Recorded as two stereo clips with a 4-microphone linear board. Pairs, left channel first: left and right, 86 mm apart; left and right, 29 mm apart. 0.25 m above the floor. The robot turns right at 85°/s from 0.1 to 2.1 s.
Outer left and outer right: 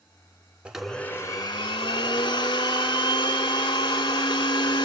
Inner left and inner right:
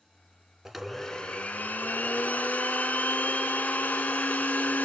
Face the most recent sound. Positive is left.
turn(degrees=110)